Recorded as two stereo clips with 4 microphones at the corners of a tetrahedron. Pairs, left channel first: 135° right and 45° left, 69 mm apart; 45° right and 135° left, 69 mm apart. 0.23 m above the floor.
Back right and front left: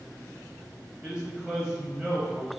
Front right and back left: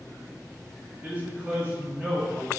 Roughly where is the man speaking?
Left.